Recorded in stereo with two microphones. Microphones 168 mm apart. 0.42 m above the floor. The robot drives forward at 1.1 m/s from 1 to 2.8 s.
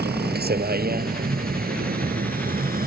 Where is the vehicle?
75° right (ahead or behind); by 2.9 s 60° right (ahead or behind).